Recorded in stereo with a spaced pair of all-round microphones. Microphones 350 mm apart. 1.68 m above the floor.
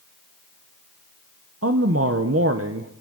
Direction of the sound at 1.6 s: 40° right (ahead or behind).